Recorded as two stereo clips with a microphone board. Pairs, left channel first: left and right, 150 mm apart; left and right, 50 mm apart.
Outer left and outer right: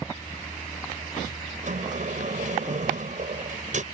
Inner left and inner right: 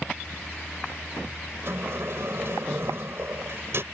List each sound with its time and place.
1.6 s a sliding door: 55° right (ahead or behind)